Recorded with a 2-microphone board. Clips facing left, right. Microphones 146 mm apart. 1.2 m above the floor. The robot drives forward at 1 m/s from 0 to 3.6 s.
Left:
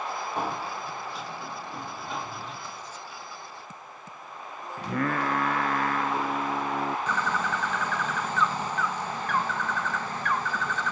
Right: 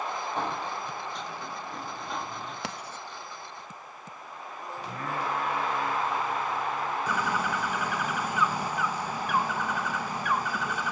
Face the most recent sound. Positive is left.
turn(degrees=-10)  # may be behind; listen again after turning